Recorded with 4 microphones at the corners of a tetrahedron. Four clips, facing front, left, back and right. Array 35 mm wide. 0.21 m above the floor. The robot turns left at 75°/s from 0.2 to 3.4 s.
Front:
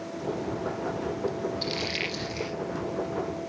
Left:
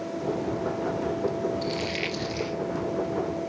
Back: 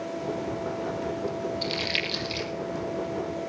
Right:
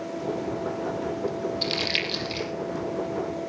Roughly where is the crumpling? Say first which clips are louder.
Right 3 dB, back 4 dB; right.